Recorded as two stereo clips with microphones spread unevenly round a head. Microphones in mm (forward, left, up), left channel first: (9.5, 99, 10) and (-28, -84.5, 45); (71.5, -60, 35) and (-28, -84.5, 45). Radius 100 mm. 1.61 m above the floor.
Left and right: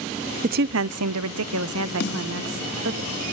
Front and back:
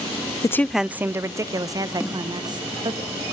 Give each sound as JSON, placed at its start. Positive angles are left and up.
{"t": 0.4, "sound": "a woman speaking", "azimuth_deg": -50, "distance_m": 0.5}
{"t": 2.0, "sound": "a snare drum", "azimuth_deg": 110, "distance_m": 3.5}